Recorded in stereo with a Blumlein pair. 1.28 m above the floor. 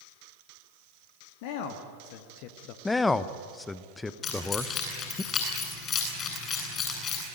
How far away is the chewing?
I don't hear chewing.